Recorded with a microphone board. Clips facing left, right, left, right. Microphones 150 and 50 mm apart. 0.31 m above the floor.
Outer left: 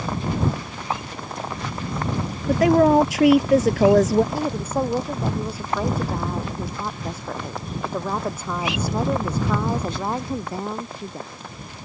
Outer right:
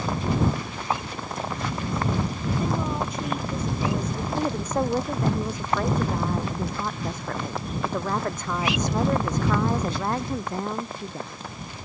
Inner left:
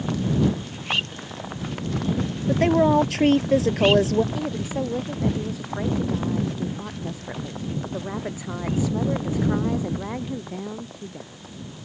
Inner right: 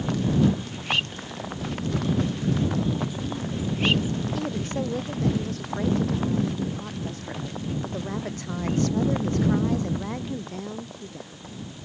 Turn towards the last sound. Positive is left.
turn(degrees=10)  # may be behind; listen again after turning